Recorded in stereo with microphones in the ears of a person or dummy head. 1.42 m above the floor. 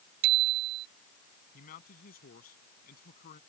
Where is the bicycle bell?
50° right (ahead or behind).